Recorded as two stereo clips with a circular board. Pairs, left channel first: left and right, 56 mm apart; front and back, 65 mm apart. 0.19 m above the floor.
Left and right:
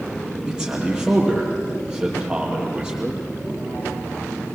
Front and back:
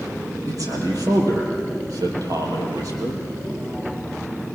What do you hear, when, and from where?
0.5 s a man speaking: 165° right, 5.5 m